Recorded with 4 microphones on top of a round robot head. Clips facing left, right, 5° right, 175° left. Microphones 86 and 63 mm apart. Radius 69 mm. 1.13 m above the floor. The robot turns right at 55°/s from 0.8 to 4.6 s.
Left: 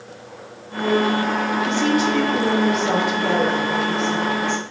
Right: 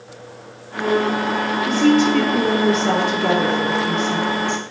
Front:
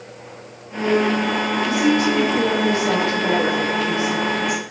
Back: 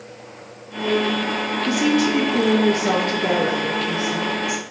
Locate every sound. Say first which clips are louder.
1.7 s a woman speaking: right 7 dB, even; 150° left, 1.3 m; by 4.7 s 50° right, 1.3 m